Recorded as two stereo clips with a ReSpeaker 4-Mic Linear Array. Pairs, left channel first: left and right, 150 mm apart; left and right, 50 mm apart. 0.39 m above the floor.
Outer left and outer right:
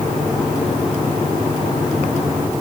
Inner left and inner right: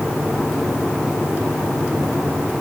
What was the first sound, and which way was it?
Only background noise.